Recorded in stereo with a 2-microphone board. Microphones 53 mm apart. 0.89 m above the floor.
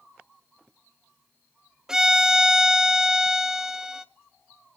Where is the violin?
10° right (ahead or behind), 0.6 m.